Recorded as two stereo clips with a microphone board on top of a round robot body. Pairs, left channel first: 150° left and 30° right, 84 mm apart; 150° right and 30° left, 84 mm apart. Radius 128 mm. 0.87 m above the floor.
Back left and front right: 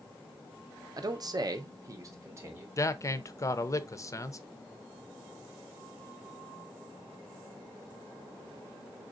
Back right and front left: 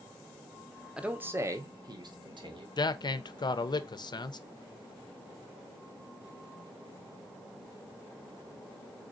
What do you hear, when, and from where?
1.0 s a man speaking: 45° right, 0.8 m; by 2.7 s 25° left, 1.2 m
2.8 s a man speaking: 165° right, 0.6 m